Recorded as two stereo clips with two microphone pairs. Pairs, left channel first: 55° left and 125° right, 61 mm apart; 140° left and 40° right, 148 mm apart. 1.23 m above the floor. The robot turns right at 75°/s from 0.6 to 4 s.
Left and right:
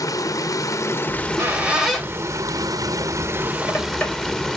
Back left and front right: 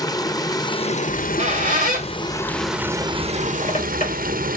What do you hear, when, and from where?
0.0 s running water: 75° left, 0.8 m; by 4.6 s 30° right, 0.8 m
1.1 s a squeak: 100° right, 2.5 m; by 4.5 s 120° left, 2.5 m